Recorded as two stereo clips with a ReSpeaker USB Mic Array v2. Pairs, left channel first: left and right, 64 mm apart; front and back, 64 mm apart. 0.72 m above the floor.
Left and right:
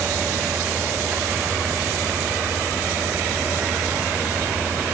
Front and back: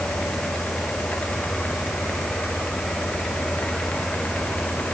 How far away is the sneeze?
I don't hear a sneeze.